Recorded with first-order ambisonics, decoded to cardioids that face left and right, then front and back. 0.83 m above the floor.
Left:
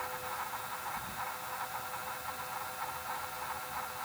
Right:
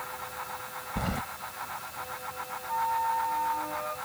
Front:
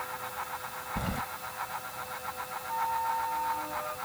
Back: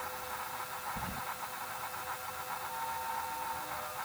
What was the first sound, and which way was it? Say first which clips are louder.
Keys jangling: right 7 dB, front 5 dB; 60° right.